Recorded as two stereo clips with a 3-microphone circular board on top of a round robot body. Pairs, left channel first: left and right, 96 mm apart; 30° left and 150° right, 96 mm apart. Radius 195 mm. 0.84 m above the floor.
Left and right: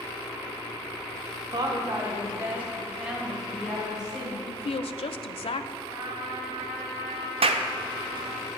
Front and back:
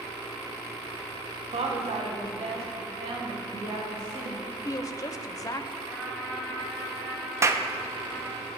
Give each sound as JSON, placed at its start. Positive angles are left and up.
{"t": 1.5, "sound": "a woman speaking", "azimuth_deg": -135, "distance_m": 1.1}
{"t": 4.5, "sound": "a woman speaking", "azimuth_deg": 80, "distance_m": 0.5}
{"t": 5.9, "sound": "a trumpet", "azimuth_deg": -75, "distance_m": 1.8}
{"t": 7.4, "sound": "a clap", "azimuth_deg": -90, "distance_m": 0.6}